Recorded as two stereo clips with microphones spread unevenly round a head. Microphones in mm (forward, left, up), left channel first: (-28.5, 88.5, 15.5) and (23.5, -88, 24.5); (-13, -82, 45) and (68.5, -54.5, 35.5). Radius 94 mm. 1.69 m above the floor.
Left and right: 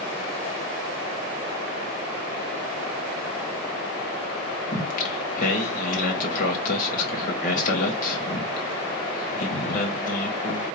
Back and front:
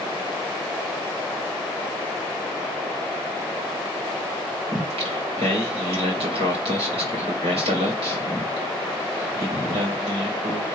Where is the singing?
60° left, 1.2 m.